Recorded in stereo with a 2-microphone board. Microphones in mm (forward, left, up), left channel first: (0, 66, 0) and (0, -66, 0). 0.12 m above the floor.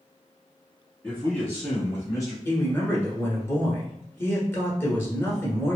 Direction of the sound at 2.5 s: 20° left (ahead or behind).